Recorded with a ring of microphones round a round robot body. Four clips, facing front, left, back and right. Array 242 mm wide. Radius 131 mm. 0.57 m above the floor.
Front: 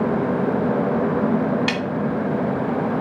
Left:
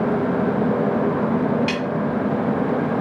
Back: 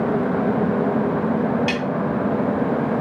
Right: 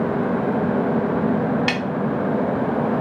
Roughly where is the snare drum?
Ahead right.